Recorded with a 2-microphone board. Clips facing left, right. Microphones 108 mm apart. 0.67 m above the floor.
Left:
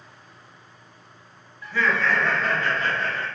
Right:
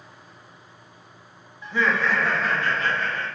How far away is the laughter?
About 0.5 m.